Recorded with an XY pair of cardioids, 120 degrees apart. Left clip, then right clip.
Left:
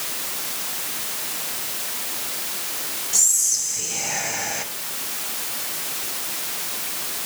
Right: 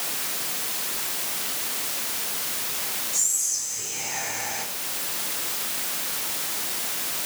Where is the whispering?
50° left, 1.6 m.